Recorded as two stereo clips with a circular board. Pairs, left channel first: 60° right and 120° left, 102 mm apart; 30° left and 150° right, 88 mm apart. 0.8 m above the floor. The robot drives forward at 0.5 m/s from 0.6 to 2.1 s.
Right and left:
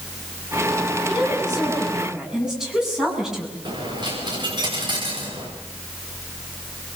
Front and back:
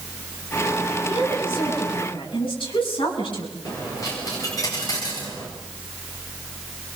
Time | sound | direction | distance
1.1 | a woman speaking | 35° left | 9 m
3.6 | a dropped coin | 75° left | 8.5 m